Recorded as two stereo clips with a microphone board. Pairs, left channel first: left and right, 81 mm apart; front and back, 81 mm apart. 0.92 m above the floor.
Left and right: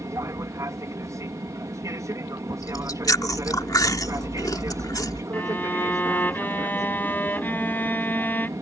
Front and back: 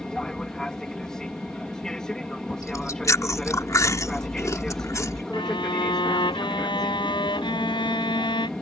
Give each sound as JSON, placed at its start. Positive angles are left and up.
{"t": 0.0, "sound": "an aircraft", "azimuth_deg": -80}
{"t": 2.6, "sound": "chewing", "azimuth_deg": 50}
{"t": 5.3, "sound": "a violin", "azimuth_deg": 25}